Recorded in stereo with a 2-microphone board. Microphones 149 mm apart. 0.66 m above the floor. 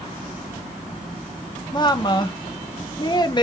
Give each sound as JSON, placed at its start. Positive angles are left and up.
{"t": 1.7, "sound": "a woman speaking", "side_deg": 30, "distance_m": 0.6}